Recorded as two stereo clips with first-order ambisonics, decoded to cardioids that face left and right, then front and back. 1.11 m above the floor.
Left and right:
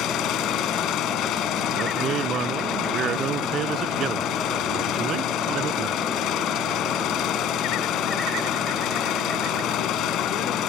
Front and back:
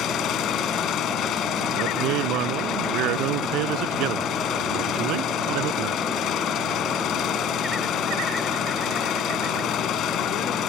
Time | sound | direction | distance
0.0 | an engine running | 45° left | ?
1.7 | a man speaking | 145° right | ?